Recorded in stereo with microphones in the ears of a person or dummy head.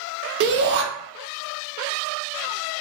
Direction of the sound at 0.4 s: 60° right (ahead or behind).